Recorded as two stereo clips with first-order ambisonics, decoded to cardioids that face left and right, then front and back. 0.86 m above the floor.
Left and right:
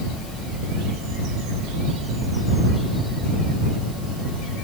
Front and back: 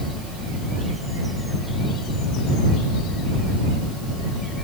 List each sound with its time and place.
Only background noise.